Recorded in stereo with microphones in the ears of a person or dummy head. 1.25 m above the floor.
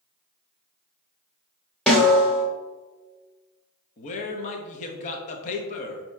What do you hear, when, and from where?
1.9 s a snare drum: 5° left (ahead or behind), 0.9 m
4.0 s a man speaking: 40° left (ahead or behind), 0.7 m